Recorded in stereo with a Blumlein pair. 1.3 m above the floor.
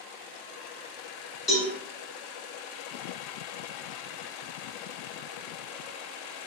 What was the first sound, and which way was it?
A cowbell, 25° left.